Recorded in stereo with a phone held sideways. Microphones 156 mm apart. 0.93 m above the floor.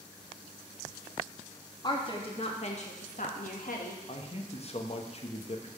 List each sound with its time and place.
1.8 s a woman speaking: 30° left (ahead or behind), 1.5 m; by 4.0 s 70° left (ahead or behind), 1.3 m
4.1 s a man speaking: 45° left (ahead or behind), 1.0 m